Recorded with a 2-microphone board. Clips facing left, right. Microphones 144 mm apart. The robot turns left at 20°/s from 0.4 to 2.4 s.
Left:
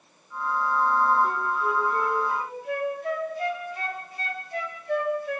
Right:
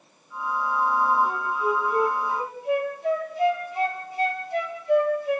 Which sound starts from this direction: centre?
A flute, at 1.2 s.